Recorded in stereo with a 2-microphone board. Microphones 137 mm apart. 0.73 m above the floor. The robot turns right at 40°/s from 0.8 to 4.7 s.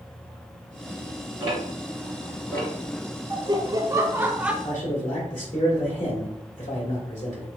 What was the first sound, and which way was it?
Ticking, 25° right (ahead or behind).